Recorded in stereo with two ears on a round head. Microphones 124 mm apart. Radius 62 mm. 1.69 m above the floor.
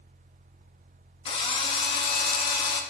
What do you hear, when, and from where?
1.2 s a drill: 40° left (ahead or behind), 1.3 m